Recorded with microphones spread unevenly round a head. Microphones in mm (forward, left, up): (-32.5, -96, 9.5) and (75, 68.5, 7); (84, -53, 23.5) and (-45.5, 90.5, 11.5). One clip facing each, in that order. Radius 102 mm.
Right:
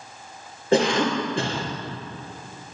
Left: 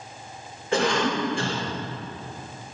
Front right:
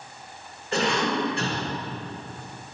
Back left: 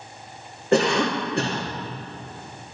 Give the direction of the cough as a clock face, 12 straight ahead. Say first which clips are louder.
Right 3 dB, back left 5 dB; 6 o'clock.